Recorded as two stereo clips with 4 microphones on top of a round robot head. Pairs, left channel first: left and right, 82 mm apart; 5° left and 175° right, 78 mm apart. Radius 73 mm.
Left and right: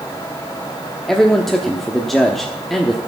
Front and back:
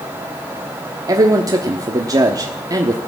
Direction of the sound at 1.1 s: 175° left.